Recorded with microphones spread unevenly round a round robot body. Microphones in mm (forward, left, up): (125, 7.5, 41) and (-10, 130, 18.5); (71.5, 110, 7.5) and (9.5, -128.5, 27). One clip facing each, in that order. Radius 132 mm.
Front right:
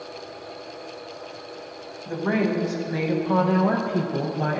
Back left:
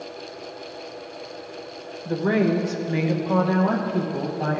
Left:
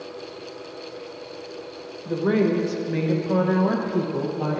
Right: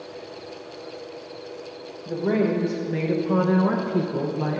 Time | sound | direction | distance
2.0 | a woman speaking | 135° left | 1.2 m